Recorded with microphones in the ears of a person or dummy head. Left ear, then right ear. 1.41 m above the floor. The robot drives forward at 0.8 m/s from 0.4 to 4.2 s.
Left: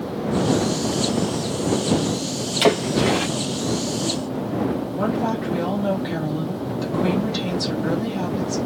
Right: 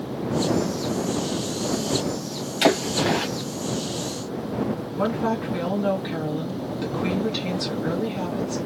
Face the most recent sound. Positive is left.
turn(degrees=-15)  # may be behind; listen again after turning